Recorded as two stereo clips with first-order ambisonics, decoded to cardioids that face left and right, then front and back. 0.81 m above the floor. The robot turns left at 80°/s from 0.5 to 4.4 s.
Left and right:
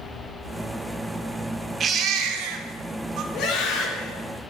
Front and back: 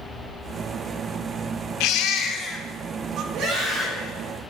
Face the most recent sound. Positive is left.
turn(degrees=55)